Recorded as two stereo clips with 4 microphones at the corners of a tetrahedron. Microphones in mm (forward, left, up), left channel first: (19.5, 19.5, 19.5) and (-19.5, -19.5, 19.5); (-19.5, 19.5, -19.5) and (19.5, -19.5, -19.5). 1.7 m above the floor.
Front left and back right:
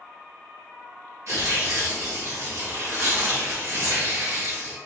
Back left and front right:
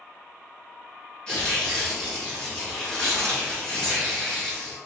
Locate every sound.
1.3 s tearing paper: 150° right, 1.0 m